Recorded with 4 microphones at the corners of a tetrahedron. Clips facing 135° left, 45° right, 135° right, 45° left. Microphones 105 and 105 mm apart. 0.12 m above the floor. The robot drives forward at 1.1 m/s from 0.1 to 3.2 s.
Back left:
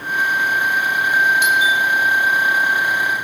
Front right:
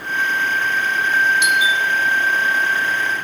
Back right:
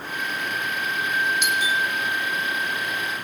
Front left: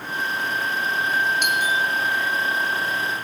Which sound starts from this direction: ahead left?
A doorbell, at 1.4 s.